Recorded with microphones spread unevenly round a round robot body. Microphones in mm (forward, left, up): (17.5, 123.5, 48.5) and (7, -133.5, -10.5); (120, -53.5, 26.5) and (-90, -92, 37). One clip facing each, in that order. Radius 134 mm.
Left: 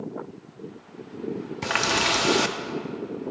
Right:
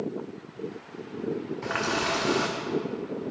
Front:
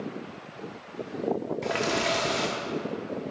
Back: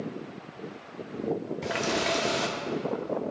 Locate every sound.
1.6 s a running tap: 100° left, 0.6 m